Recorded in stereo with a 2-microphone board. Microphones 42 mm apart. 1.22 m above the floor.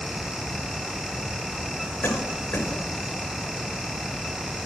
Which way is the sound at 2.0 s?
60° left (ahead or behind).